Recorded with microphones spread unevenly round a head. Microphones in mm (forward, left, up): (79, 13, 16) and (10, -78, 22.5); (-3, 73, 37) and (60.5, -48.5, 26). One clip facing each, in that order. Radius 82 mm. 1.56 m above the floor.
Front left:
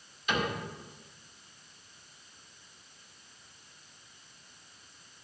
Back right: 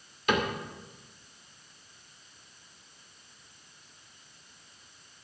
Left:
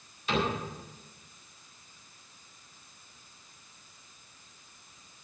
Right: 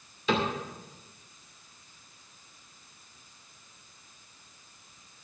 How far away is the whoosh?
I don't hear a whoosh.